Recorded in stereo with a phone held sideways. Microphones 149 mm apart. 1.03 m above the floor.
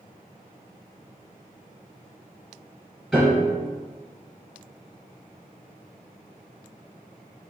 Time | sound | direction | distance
3.1 | a piano | 5° left (ahead or behind) | 1.7 m